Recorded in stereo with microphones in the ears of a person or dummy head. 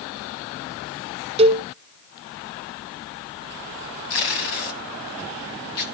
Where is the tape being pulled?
45° left (ahead or behind), 1.4 m.